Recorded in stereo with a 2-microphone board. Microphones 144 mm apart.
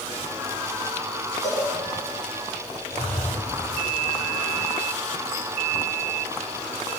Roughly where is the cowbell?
Left.